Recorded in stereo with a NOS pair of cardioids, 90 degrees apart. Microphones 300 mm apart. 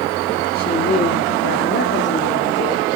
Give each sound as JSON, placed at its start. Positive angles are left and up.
{"t": 0.6, "sound": "a woman speaking", "azimuth_deg": 30, "distance_m": 3.0}